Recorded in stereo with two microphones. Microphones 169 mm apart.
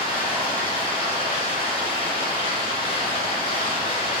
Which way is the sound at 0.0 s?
40° left (ahead or behind).